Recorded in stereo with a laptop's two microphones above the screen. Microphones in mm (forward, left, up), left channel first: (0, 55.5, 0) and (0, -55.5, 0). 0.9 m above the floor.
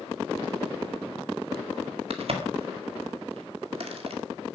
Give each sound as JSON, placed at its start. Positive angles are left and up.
{"t": 2.1, "sound": "a crack", "side_deg": -60, "distance_m": 1.9}